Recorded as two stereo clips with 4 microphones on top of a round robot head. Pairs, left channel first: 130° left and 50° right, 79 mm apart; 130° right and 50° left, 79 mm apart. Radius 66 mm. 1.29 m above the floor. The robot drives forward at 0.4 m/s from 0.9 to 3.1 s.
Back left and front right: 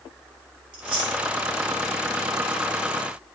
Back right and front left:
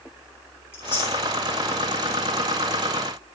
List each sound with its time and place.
0.7 s chewing: 70° right, 1.4 m; by 1.2 s 80° right, 1.3 m